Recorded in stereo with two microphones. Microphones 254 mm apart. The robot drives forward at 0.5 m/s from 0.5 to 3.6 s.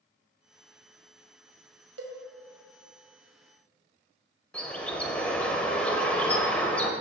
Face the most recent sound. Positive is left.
turn(degrees=5)  # may be behind; listen again after turning